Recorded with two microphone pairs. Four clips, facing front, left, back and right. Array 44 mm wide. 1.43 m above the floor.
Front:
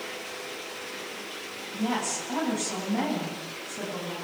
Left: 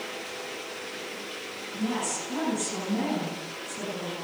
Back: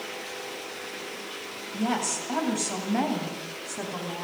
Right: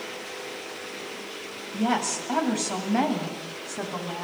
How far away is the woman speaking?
About 8.5 m.